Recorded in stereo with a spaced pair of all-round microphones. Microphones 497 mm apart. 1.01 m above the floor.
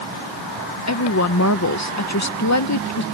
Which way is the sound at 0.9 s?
35° left (ahead or behind).